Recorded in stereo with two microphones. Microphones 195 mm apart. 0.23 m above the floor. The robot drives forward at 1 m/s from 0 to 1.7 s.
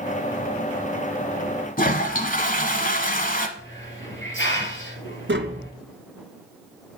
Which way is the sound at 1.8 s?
45° left (ahead or behind).